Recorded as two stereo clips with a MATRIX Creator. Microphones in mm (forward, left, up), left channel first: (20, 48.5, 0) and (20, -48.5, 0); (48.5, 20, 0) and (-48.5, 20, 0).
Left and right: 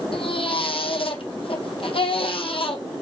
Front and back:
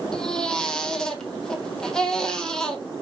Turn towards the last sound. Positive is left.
turn(degrees=85)